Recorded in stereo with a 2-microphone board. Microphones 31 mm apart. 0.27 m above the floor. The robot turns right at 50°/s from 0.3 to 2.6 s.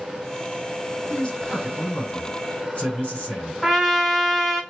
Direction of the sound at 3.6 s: 10° right (ahead or behind).